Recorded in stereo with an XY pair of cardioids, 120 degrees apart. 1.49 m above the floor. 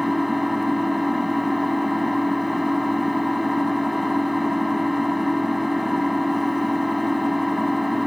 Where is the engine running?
5° left.